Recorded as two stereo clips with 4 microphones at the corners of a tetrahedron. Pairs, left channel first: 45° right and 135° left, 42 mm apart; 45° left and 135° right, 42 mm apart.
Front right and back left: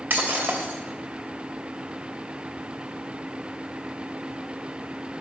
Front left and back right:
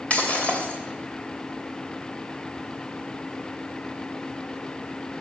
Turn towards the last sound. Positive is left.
turn(degrees=105)